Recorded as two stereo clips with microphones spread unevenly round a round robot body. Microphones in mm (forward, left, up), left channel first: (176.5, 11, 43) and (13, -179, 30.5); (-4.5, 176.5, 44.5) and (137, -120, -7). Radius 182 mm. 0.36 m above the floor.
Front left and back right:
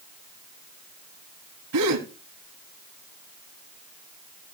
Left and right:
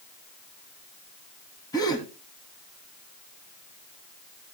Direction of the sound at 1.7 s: 165° right.